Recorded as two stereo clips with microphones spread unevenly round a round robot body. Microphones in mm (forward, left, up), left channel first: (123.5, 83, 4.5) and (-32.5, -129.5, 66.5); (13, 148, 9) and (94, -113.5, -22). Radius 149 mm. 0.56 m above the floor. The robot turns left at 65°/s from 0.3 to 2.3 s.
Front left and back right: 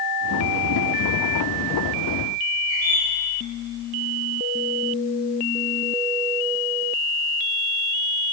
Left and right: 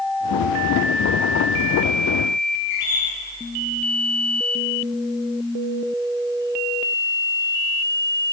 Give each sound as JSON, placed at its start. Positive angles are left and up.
{"t": 2.7, "sound": "a bird", "azimuth_deg": 160, "distance_m": 2.5}